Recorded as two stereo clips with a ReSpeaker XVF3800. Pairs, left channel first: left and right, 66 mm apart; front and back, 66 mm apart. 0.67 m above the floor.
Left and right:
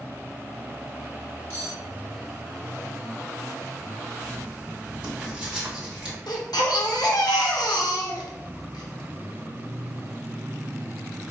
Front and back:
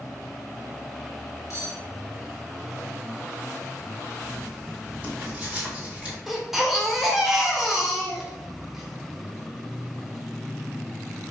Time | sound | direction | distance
1.5 | cutlery clinking | 35° left | 1.3 m
4.2 | writing | 140° right | 1.1 m
6.3 | a baby crying | 95° left | 0.7 m